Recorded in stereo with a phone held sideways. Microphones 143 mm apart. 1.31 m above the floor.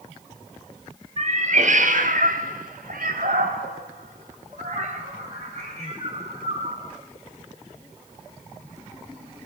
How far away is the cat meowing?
About 3 m.